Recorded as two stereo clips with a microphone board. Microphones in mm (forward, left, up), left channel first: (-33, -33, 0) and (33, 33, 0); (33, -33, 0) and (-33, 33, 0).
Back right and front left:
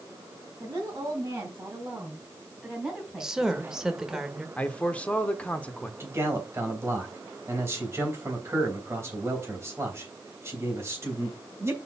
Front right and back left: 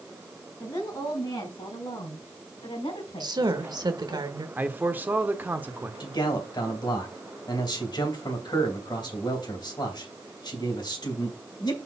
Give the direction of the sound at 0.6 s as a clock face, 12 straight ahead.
12 o'clock.